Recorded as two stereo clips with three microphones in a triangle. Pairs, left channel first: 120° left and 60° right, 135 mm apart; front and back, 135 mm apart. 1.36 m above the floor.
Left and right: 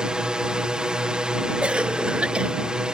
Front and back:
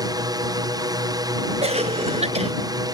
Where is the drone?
140° right.